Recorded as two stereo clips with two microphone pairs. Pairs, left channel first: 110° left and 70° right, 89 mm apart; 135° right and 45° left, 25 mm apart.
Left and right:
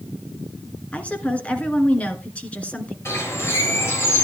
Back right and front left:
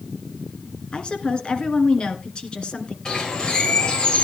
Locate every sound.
0.9 s a woman speaking: 175° right, 2 m
3.0 s a bird: 170° left, 4 m